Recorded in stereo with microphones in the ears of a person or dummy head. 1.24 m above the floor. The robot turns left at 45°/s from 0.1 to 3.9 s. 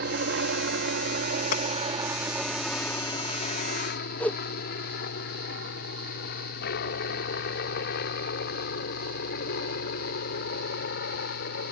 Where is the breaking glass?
50° left (ahead or behind); by 1.6 s 45° left (ahead or behind).